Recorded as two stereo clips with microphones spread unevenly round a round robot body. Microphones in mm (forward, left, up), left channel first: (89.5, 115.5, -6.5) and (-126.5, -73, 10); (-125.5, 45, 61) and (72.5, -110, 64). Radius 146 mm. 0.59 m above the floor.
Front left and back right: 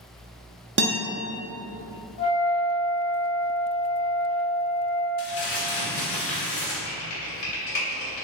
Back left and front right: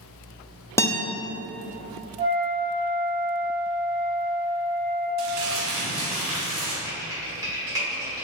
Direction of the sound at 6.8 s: 40° left.